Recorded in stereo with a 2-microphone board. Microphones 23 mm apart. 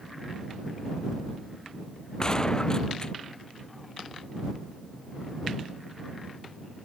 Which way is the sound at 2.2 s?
30° left (ahead or behind).